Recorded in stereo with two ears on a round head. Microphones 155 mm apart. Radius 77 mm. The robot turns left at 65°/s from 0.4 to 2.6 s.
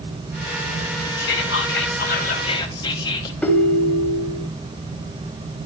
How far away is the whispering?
About 2 m.